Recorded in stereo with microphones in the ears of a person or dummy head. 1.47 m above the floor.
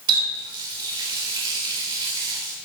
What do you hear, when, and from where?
0.1 s a running tap: 25° right (ahead or behind), 3.5 m